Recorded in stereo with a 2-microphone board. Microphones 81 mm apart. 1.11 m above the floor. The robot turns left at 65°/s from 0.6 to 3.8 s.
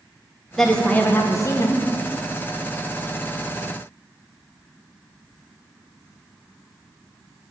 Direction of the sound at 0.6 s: 175° left.